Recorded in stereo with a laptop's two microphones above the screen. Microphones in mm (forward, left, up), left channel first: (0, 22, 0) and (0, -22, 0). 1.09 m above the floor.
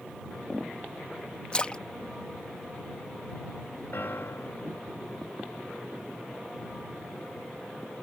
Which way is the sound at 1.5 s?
25° left (ahead or behind).